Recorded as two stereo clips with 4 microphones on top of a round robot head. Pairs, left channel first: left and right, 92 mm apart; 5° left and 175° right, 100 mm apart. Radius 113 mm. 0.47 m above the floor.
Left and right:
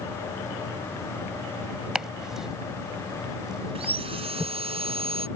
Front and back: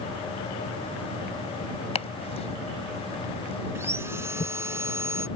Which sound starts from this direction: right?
Sawing, at 3.8 s.